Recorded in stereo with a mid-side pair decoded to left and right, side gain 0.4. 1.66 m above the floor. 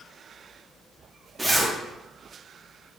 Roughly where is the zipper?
Ahead.